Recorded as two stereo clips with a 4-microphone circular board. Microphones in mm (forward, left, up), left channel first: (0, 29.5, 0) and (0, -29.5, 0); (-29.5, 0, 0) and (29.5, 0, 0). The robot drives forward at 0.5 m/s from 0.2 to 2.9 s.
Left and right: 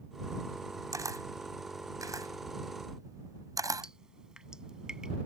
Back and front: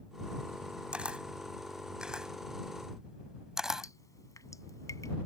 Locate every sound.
0.9 s a camera shutter: 70° right; by 3.9 s 80° right
3.8 s dripping: 165° right